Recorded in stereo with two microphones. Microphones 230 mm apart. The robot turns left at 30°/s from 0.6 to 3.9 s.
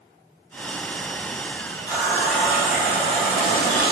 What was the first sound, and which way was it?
A running tap, 15° left.